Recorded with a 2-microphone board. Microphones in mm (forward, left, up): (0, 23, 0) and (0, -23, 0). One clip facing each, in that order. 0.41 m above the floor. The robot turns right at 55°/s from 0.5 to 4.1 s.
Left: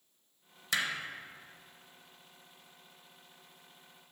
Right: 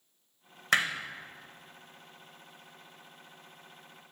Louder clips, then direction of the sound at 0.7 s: Right 6 dB; 50° right (ahead or behind).